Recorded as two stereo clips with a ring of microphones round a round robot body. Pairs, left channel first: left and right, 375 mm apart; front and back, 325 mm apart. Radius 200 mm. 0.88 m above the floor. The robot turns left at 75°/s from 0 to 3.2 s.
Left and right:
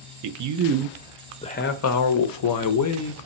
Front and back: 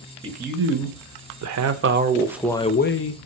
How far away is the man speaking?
About 0.6 m.